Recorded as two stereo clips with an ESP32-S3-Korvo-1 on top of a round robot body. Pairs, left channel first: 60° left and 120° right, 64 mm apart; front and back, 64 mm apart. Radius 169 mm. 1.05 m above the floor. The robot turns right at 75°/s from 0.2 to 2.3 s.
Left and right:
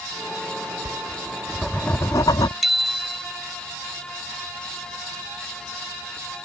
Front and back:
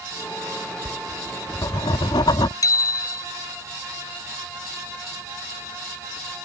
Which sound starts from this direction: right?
Writing, at 0.8 s.